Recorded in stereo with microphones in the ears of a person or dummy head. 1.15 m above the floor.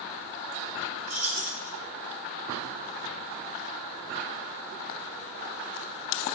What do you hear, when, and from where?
1.1 s keys jangling: 90° right, 8.5 m